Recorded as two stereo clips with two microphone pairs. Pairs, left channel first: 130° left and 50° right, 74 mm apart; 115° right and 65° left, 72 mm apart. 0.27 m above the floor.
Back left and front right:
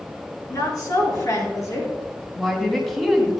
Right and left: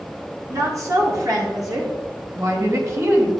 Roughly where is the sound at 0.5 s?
Left.